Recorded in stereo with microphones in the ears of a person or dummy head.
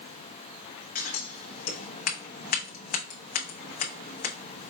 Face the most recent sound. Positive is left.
turn(degrees=40)  # may be behind; listen again after turning